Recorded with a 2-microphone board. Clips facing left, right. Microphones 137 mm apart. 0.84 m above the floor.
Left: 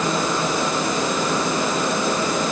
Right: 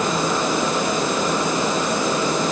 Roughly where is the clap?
I don't hear a clap.